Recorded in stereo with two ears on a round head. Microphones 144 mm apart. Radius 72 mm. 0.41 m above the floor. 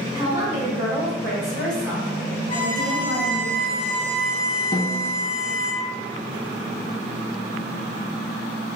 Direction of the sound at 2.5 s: 30° left (ahead or behind).